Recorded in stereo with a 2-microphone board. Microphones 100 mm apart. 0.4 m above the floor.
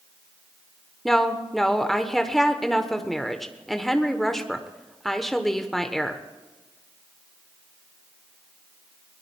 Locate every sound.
1.1 s a woman speaking: 5° left (ahead or behind), 1.1 m